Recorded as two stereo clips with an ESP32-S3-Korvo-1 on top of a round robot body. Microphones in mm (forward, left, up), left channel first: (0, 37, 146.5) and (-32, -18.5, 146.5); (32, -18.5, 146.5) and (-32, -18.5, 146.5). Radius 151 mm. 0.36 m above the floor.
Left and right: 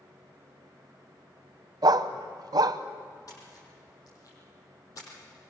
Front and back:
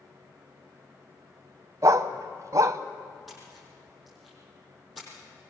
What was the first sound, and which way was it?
A dog barking, 140° right.